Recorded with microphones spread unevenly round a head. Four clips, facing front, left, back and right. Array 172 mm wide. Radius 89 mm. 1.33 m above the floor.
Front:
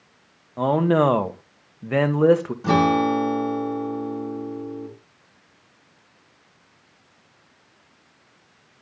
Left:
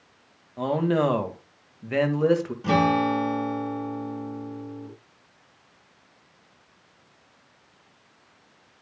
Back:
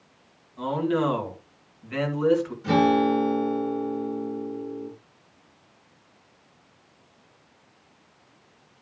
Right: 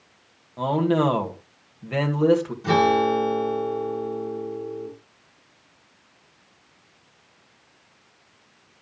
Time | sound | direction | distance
0.6 | a man speaking | straight ahead | 2 m
2.6 | a guitar | 20° left | 6 m